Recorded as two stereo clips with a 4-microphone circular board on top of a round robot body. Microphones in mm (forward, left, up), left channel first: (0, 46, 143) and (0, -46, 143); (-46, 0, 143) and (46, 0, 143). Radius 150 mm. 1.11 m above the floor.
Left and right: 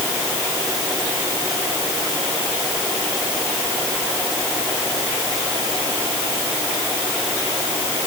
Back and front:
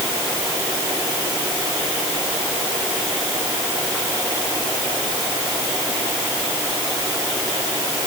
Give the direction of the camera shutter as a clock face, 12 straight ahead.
I don't hear a camera shutter.